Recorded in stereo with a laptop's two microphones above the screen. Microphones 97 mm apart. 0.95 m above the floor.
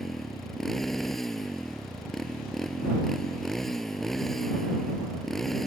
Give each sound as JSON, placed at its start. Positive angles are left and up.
{"t": 0.0, "sound": "a motorcycle", "side_deg": 0}